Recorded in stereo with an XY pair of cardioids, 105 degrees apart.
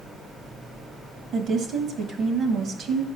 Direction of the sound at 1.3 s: 65° right.